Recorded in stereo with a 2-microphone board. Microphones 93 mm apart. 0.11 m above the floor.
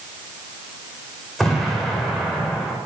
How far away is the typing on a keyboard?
I don't hear typing on a keyboard.